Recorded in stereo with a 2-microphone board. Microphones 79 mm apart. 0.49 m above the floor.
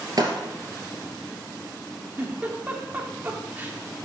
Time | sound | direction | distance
0.2 | breaking glass | 55° right (ahead or behind) | 2.5 m
2.2 | a giggle | 25° right (ahead or behind) | 1.2 m